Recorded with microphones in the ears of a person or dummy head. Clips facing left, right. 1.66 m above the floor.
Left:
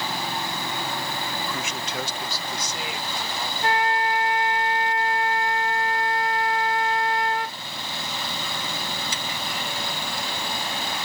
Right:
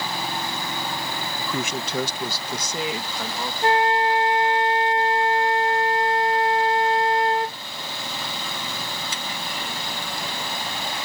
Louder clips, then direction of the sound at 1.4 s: Right 3 dB; 85° right.